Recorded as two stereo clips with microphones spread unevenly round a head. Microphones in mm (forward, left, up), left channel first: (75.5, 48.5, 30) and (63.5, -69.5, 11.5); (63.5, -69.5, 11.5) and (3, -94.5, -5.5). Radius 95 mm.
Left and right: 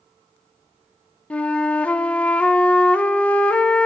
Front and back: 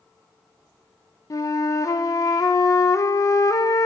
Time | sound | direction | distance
1.3 | a flute | straight ahead | 0.6 m